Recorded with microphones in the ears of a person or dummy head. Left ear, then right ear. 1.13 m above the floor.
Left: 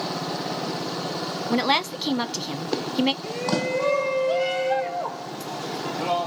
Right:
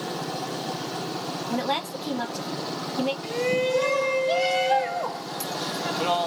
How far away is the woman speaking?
About 0.9 m.